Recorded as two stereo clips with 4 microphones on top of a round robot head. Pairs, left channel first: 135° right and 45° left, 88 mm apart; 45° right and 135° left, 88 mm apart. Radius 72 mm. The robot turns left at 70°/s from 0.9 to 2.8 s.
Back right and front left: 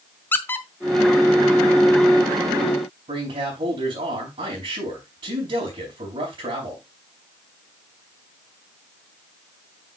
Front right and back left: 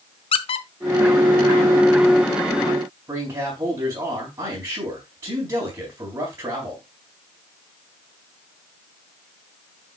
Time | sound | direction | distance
0.3 | a squeak | 65° right | 0.7 m
3.1 | a man speaking | 85° left | 3.5 m